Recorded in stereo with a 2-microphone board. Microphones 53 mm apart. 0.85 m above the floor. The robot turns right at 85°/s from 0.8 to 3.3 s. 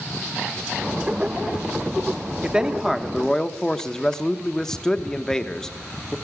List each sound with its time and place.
2.4 s a man speaking: 20° right (ahead or behind), 0.8 m; by 6.2 s 10° left (ahead or behind), 0.8 m